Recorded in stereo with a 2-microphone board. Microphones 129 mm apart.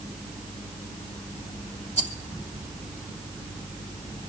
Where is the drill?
I don't hear a drill.